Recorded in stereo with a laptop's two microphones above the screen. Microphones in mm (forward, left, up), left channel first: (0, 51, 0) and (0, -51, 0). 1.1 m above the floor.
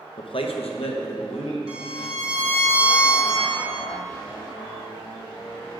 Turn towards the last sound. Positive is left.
turn(degrees=-60)  # may be behind; listen again after turning